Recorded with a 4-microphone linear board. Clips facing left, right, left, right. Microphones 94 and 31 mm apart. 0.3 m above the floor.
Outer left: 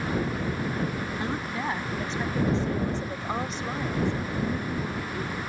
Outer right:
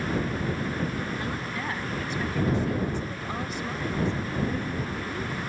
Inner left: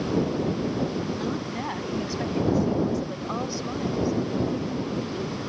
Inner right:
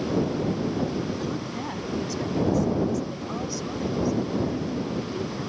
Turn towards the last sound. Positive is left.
turn(degrees=5)  # may be behind; listen again after turning